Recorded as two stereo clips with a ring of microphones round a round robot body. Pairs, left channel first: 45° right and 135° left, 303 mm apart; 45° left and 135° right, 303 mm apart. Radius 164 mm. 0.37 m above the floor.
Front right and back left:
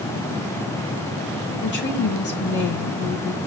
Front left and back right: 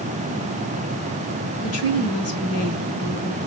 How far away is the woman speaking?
About 2.5 m.